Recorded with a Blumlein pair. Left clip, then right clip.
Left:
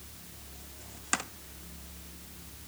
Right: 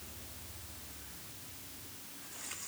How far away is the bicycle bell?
No bicycle bell in this recording.